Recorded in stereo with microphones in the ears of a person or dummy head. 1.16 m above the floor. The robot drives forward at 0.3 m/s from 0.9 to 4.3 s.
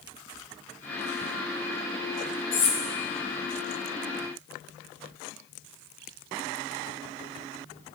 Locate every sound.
2.5 s cutlery clinking: 30° left (ahead or behind), 0.9 m